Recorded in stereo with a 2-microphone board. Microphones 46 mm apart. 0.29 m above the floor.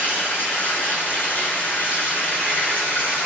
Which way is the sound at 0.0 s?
40° left (ahead or behind).